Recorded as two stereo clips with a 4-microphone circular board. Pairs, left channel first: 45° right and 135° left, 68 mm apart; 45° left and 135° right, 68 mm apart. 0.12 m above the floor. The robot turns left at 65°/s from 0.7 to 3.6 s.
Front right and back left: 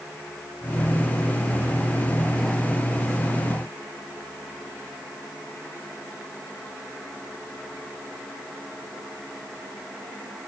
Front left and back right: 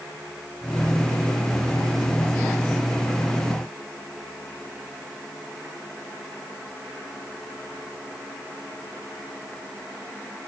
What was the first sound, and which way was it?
Only background noise.